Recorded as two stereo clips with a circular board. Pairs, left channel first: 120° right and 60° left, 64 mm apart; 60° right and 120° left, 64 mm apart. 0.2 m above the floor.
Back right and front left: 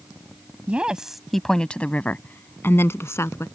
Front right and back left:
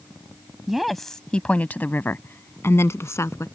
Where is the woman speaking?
45° left; by 3.5 s 90° right.